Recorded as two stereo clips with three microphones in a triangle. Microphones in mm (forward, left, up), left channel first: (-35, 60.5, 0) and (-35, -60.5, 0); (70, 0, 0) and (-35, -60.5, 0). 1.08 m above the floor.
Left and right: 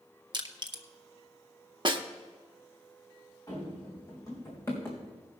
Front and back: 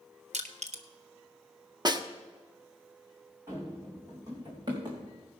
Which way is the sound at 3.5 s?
145° left.